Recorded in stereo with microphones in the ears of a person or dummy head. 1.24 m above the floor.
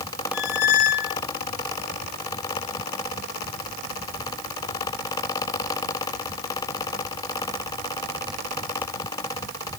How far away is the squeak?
About 0.7 m.